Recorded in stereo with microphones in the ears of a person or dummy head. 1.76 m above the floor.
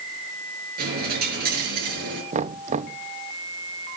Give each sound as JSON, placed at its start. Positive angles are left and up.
{"t": 0.8, "sound": "a dropped coin", "side_deg": -40, "distance_m": 5.5}
{"t": 2.3, "sound": "knocking", "side_deg": -45, "distance_m": 1.0}